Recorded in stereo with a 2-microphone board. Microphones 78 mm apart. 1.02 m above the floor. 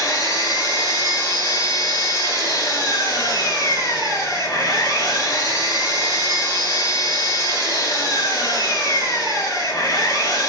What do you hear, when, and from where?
0.0 s an engine running: 50° left (ahead or behind), 1.5 m